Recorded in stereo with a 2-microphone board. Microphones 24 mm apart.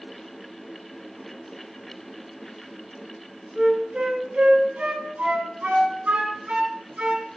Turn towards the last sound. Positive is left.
turn(degrees=-60)  # may be behind; listen again after turning